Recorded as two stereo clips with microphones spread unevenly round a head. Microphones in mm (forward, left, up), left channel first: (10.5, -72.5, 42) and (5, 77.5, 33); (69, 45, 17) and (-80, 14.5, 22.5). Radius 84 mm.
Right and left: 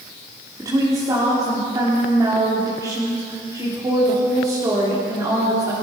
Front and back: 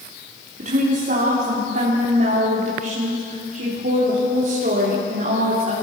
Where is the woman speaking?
160° left, 4 m.